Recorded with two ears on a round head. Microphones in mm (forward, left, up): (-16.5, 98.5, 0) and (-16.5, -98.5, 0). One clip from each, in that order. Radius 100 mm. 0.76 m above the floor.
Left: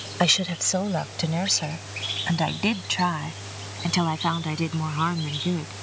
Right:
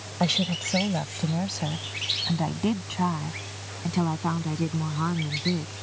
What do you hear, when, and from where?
0.2 s a woman speaking: 75° left (ahead or behind)